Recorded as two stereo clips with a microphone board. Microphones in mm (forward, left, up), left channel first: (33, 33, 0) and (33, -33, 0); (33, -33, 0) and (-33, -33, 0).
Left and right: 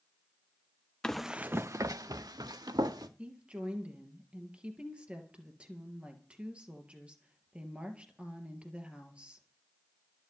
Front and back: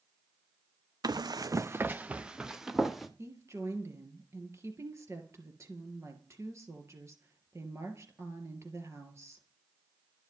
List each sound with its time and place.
1.0 s running footsteps: 170° left, 0.5 m; by 3.1 s 95° right, 1.6 m
3.2 s a woman speaking: 160° right, 2.5 m